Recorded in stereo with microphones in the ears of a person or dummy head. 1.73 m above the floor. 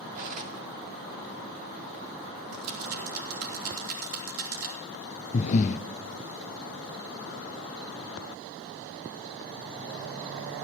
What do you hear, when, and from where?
0.1 s cutlery clinking: 45° right (ahead or behind), 2.5 m
2.5 s a rattle: 85° right, 4 m
5.3 s breathing: 40° left (ahead or behind), 0.5 m